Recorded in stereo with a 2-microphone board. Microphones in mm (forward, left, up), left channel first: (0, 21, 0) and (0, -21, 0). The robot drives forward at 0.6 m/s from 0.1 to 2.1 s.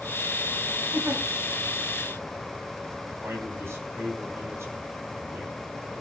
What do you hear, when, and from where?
0.9 s a giggle: 85° right, 3.5 m; by 1.2 s 80° right, 3.5 m
3.2 s a man speaking: 80° right, 4.5 m